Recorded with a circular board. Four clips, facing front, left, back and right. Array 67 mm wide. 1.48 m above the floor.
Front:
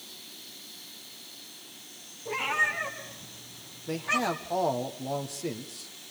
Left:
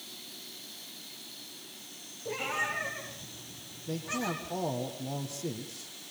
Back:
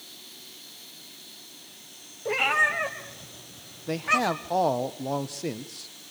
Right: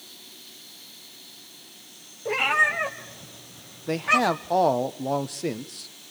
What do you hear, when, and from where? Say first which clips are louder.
2.2 s a cat meowing: right 11 dB, back 4 dB; 130° right, 4 m; by 4.5 s 115° right, 4.5 m
3.9 s a man speaking: right 12 dB, back 4 dB; 105° right, 1.1 m